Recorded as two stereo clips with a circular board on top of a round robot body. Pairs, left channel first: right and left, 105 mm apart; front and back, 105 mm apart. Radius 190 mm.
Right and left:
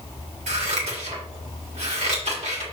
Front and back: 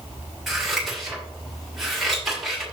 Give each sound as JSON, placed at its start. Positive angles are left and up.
{"t": 0.5, "sound": "scissors", "azimuth_deg": 95, "distance_m": 2.5}